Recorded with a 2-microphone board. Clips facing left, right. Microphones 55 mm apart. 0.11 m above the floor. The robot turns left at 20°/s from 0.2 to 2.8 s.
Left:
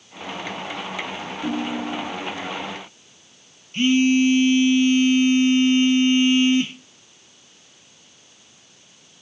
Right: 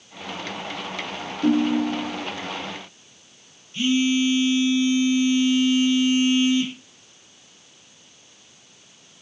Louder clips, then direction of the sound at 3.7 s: Left 4 dB; 50° left (ahead or behind).